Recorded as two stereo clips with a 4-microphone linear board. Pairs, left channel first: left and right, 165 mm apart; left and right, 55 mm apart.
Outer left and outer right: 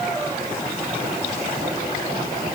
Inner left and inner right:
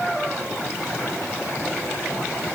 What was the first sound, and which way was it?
Only background noise.